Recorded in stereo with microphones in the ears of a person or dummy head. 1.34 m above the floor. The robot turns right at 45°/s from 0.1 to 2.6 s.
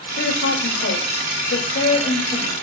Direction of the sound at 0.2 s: 60° left.